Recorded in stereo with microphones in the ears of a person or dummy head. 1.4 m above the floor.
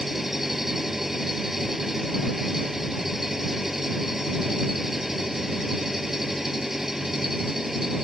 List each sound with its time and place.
0.0 s an engine running: centre (ahead or behind)